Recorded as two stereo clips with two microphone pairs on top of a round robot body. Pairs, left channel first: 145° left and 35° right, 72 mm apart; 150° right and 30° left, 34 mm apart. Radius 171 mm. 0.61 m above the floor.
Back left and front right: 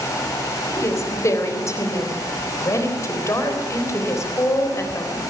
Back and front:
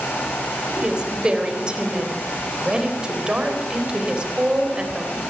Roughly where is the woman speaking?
Left.